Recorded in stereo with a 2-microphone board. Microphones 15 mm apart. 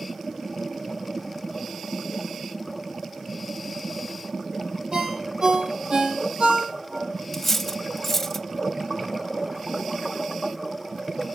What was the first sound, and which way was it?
A ringtone, 70° right (ahead or behind).